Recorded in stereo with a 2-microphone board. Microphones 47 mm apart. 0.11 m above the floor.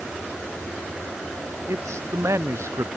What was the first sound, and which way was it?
A man speaking, 80° right.